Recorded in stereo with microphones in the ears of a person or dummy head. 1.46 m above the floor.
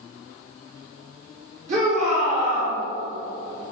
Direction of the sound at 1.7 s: 40° right (ahead or behind).